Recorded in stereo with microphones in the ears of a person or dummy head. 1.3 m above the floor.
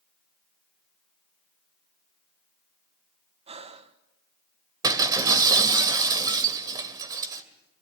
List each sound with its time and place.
3.5 s breathing: 35° right (ahead or behind), 1.0 m
4.8 s breaking glass: 20° right (ahead or behind), 2 m